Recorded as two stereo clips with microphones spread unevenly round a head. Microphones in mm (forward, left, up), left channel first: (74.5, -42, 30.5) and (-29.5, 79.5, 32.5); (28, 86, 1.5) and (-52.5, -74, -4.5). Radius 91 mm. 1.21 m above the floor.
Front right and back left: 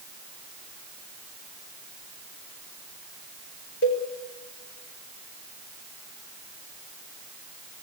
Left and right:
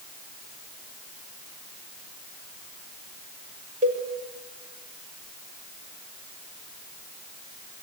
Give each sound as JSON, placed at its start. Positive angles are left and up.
{"t": 3.8, "sound": "a cowbell", "azimuth_deg": -65, "distance_m": 6.5}